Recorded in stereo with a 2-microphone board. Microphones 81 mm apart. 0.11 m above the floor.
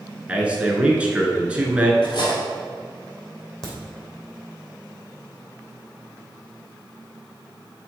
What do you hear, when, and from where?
0.3 s a man speaking: 15° right (ahead or behind), 1.2 m
2.0 s cutlery clinking: 55° left (ahead or behind), 2 m
3.6 s a crack: 5° left (ahead or behind), 2 m